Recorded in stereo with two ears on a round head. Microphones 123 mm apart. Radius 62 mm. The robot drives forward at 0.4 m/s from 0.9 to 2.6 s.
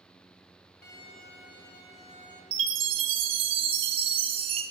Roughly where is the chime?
Right.